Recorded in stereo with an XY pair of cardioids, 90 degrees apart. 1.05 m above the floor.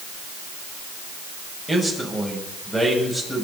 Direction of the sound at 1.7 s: 5° left.